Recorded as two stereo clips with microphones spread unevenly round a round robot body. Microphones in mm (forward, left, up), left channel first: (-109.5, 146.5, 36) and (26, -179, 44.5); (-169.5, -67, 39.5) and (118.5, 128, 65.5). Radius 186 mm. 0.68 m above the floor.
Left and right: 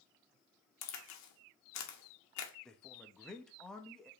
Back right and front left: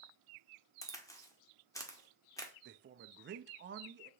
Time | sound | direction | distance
0.8 | a crack | 140° left | 1.1 m
2.6 | a man speaking | 30° left | 0.5 m